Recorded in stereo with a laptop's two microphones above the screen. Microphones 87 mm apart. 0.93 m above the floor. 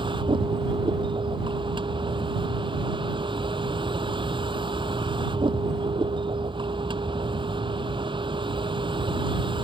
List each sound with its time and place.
0.0 s a vehicle: 70° right (ahead or behind)